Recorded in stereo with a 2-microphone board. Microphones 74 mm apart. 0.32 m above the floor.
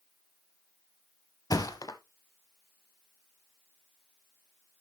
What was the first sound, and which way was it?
A thud, 60° left (ahead or behind).